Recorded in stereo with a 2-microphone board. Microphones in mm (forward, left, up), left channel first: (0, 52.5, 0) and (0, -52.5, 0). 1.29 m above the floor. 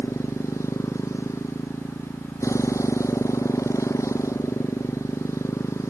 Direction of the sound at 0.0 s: 30° left (ahead or behind).